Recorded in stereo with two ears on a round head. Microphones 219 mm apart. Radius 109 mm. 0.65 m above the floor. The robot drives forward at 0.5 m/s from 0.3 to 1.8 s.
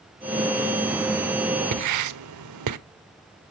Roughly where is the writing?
Right.